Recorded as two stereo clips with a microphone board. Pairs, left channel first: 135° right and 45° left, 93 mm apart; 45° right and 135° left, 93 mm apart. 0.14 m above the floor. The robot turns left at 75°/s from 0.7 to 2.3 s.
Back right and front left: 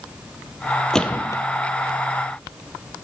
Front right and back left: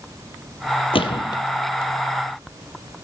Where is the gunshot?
50° right, 0.8 m; by 1.4 s 90° right, 0.8 m.